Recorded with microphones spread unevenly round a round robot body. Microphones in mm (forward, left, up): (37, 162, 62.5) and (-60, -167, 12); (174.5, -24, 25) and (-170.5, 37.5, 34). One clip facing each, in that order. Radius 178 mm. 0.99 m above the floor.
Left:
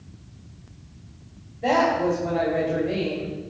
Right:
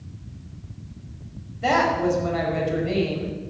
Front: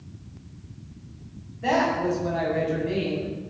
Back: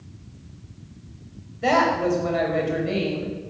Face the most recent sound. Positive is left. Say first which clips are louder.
# even, back 2 dB
turn(degrees=-160)